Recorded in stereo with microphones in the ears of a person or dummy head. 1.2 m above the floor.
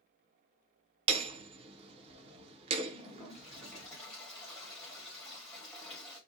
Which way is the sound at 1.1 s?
35° right (ahead or behind).